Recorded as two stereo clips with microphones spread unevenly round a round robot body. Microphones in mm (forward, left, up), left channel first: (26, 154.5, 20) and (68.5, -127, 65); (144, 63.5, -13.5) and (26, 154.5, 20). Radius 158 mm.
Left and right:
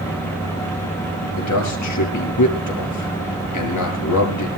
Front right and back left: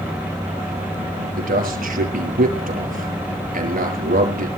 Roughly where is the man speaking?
Behind left.